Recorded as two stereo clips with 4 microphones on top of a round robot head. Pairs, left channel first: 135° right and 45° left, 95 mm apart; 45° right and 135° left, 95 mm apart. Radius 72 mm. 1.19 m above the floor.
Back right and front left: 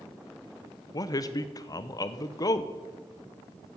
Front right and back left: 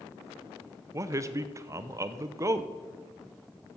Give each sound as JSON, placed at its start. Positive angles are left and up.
{"t": 0.9, "sound": "a man speaking", "azimuth_deg": -175, "distance_m": 0.8}